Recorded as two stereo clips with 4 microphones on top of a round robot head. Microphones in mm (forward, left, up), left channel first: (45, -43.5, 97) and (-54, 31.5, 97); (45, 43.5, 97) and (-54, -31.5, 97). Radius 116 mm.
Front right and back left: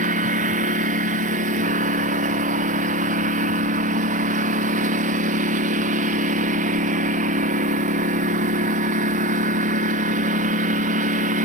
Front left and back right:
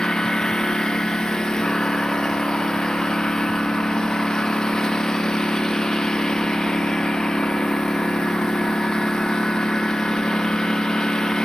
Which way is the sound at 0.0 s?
120° left.